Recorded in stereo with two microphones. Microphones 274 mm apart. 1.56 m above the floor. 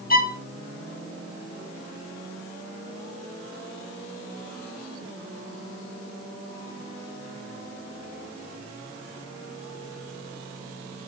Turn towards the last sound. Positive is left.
turn(degrees=35)  # may be behind; listen again after turning